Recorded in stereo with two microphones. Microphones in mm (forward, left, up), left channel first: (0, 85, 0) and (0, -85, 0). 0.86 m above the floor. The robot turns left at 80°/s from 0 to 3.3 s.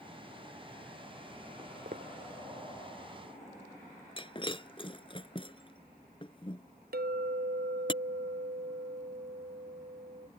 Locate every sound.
1.6 s footsteps: 25° right (ahead or behind); by 2.1 s 65° right (ahead or behind)
4.2 s breaking glass: 30° left (ahead or behind)
6.9 s a clink: 70° right (ahead or behind)